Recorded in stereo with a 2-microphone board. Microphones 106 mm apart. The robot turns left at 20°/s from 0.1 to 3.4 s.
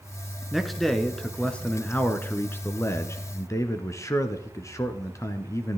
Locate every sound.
0.5 s a man speaking: 175° right, 1.2 m; by 5.8 s 125° left, 1.2 m